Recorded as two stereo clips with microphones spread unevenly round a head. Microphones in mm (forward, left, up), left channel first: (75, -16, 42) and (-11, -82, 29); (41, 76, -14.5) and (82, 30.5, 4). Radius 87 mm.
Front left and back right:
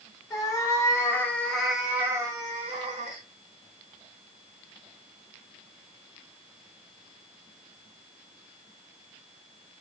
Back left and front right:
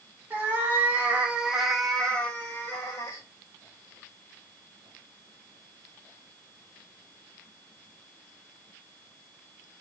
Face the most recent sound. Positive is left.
turn(degrees=-175)